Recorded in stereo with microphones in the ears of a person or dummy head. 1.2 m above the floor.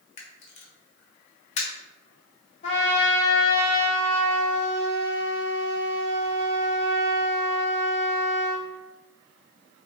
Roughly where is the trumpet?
Left.